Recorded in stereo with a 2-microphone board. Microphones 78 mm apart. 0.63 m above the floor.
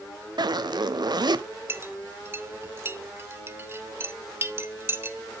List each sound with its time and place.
0.4 s a zipper: 65° right (ahead or behind), 0.8 m
1.7 s a clink: 30° right (ahead or behind), 0.9 m